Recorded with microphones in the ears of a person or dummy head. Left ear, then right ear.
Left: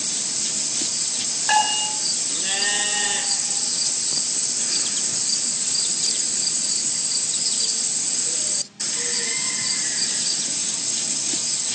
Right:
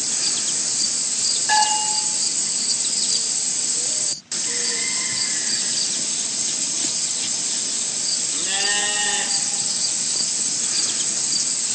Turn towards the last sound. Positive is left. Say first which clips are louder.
# even
turn(degrees=30)  # may be behind; listen again after turning